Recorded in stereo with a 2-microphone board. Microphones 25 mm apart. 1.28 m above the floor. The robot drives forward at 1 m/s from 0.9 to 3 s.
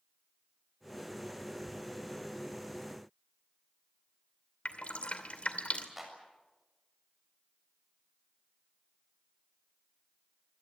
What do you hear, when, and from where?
4.7 s dripping: 55° left (ahead or behind), 2.5 m
6.0 s a clap: 10° right (ahead or behind), 7 m